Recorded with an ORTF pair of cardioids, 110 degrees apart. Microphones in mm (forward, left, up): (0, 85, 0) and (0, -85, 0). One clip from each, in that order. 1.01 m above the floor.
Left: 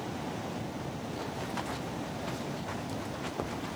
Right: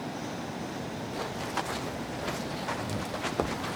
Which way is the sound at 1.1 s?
35° right.